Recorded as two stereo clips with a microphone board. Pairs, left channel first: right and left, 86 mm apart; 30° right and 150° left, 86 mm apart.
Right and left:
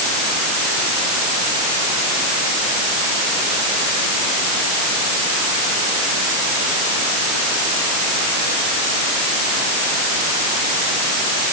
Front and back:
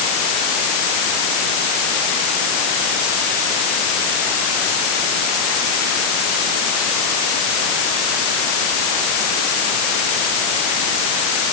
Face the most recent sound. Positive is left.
No sound to turn to.